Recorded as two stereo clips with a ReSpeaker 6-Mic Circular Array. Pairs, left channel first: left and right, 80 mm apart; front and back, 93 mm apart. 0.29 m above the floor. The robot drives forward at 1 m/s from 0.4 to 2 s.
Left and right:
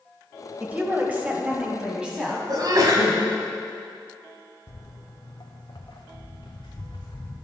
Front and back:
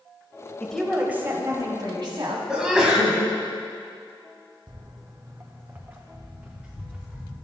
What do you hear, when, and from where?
0.6 s a woman speaking: 55° right, 1.0 m; by 2.4 s 165° right, 1.5 m
2.5 s a sneeze: 100° right, 1.6 m
4.7 s footsteps: 145° left, 0.7 m; by 7.3 s 100° left, 2 m